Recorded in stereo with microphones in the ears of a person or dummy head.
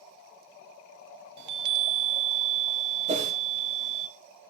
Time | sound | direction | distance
1.4 | a chime | 65° right (ahead or behind) | 0.6 m
3.1 | a whoosh | 30° right (ahead or behind) | 1.4 m